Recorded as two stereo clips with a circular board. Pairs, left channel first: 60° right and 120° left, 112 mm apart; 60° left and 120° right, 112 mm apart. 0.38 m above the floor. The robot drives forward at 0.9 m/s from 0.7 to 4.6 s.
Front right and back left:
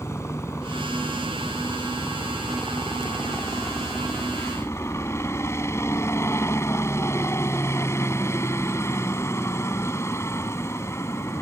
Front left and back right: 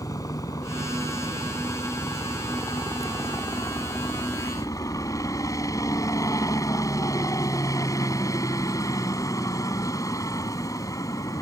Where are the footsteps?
I don't hear footsteps.